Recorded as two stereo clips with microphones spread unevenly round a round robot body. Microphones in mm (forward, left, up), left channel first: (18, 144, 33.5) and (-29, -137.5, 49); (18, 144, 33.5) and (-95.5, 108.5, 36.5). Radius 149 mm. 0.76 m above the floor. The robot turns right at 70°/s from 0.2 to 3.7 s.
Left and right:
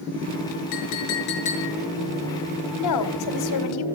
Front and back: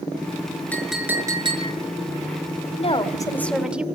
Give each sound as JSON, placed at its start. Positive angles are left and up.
{"t": 0.7, "sound": "a clink", "azimuth_deg": 95, "distance_m": 6.5}
{"t": 2.8, "sound": "a woman speaking", "azimuth_deg": 50, "distance_m": 2.0}